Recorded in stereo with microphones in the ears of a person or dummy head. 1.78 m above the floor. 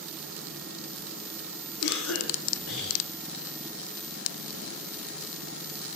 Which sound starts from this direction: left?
A cough, at 1.8 s.